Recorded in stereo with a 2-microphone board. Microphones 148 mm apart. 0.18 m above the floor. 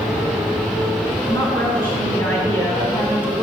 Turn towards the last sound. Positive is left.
turn(degrees=10)  # may be behind; listen again after turning